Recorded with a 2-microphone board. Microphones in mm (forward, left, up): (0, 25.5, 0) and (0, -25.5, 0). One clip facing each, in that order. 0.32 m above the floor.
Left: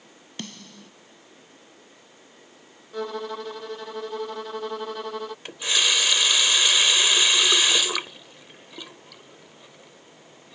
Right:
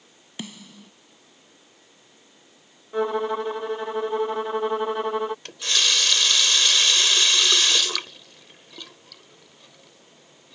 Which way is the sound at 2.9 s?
25° right (ahead or behind).